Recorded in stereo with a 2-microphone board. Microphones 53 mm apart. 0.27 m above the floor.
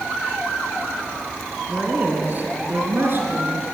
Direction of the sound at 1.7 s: 30° right (ahead or behind).